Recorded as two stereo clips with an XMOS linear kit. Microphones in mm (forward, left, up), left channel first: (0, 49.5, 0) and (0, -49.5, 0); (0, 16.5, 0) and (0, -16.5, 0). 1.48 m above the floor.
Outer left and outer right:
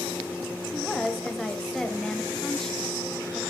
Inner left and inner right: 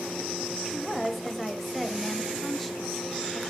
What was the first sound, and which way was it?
A woman speaking, 5° left (ahead or behind).